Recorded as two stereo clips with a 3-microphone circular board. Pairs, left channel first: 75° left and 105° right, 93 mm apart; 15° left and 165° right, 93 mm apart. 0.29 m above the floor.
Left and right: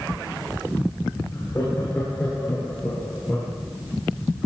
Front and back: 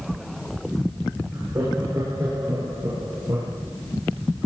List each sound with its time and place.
1.3 s laughter: 135° left, 3.5 m; by 3.5 s 155° left, 6 m